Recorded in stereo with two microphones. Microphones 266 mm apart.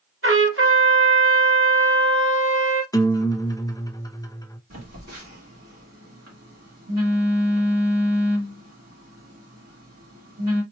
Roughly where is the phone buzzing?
Right.